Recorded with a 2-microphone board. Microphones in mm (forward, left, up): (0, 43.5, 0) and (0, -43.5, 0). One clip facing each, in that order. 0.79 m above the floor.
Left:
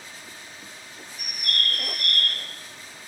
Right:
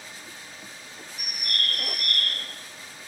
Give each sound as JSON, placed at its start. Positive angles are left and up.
{"t": 1.2, "sound": "a bird", "side_deg": -10, "distance_m": 0.6}